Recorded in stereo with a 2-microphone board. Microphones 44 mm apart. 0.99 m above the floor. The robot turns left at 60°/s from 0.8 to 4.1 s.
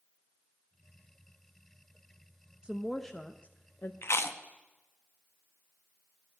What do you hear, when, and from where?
2.6 s a woman speaking: 160° right, 0.6 m; by 3.9 s 125° left, 0.6 m
4.0 s chewing: 55° left (ahead or behind), 0.8 m; by 4.4 s 60° left (ahead or behind), 0.8 m